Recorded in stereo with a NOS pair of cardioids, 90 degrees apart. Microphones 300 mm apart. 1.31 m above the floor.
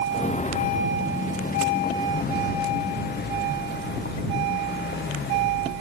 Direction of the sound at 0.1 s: 25° left.